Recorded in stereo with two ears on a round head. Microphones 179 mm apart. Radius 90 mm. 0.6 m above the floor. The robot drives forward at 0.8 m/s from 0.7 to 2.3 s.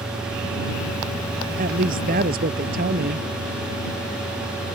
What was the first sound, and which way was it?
A woman speaking, 45° right (ahead or behind).